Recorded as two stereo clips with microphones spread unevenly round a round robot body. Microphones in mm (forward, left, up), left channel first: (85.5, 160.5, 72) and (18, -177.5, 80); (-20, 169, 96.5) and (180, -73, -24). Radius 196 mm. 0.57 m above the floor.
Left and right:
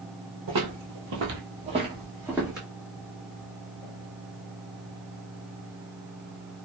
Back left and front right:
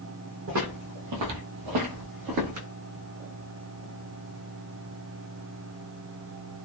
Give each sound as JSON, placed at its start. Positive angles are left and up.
{"t": 0.5, "sound": "footsteps", "azimuth_deg": -120, "distance_m": 0.8}